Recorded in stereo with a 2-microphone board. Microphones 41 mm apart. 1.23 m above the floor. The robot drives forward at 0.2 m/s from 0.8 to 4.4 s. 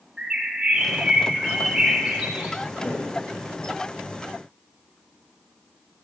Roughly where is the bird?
Centre.